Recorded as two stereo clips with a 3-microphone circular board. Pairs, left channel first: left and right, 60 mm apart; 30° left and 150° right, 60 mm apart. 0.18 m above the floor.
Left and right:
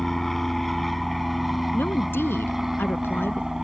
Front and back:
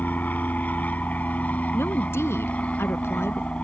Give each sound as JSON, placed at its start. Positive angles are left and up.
{"t": 0.0, "sound": "an aircraft", "azimuth_deg": 5}
{"t": 1.7, "sound": "a woman speaking", "azimuth_deg": 55}